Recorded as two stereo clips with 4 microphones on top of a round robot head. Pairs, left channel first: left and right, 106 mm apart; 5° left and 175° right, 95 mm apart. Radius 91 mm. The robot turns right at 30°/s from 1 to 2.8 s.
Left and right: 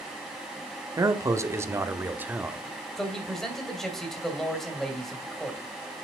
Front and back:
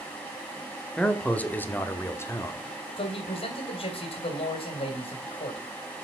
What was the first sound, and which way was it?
A man speaking, 65° right.